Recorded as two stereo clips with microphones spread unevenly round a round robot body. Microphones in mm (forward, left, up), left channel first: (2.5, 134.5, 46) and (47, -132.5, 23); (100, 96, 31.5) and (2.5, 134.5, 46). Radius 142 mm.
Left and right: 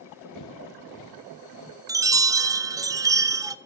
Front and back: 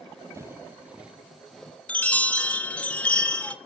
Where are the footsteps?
100° left, 1.3 m; by 1.8 s 65° left, 1.8 m.